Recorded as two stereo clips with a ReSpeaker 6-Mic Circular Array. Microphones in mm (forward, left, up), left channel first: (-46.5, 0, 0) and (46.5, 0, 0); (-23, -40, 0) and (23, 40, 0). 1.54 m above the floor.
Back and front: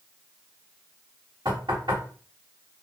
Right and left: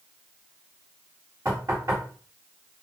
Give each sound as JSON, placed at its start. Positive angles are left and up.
{"t": 1.4, "sound": "knocking", "azimuth_deg": 10, "distance_m": 1.6}